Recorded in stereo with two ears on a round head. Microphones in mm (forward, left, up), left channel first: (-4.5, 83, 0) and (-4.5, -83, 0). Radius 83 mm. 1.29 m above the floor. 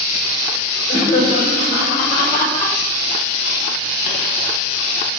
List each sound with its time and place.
0.9 s laughter: 30° left (ahead or behind), 5.5 m; by 2.8 s 25° left (ahead or behind), 7.5 m